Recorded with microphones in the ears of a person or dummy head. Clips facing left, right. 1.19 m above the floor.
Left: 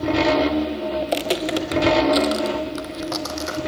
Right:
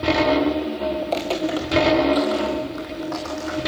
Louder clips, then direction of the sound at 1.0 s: Even; 20° left (ahead or behind).